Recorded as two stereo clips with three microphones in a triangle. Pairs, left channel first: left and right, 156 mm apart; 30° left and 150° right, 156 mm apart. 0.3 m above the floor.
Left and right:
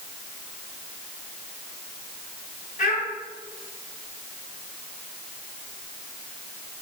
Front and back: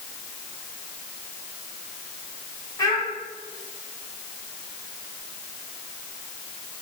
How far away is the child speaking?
About 1.5 m.